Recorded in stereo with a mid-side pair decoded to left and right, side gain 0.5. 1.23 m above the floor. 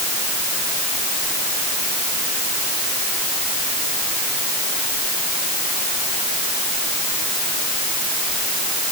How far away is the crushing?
I don't hear crushing.